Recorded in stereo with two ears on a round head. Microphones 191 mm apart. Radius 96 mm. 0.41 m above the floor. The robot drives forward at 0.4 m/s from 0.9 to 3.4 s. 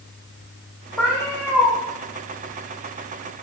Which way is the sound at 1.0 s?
10° left (ahead or behind).